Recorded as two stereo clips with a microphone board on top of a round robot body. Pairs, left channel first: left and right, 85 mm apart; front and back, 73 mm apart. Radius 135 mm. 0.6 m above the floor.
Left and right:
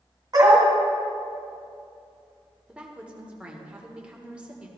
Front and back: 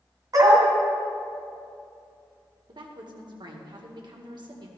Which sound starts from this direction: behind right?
A dog barking, at 0.3 s.